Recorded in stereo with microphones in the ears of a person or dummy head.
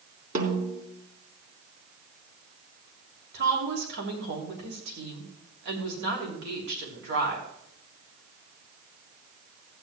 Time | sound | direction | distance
0.3 | a snare drum | 50° right (ahead or behind) | 3.5 m
3.3 | a woman speaking | 65° right (ahead or behind) | 2.5 m